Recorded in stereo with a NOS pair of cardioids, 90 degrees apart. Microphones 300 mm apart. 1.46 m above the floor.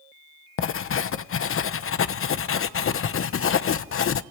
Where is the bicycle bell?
No bicycle bell in this recording.